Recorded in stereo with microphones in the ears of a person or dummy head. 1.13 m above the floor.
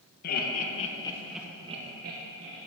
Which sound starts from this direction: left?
Laughter, at 0.2 s.